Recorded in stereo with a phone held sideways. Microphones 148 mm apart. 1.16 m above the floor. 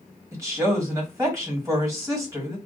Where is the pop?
I don't hear a pop.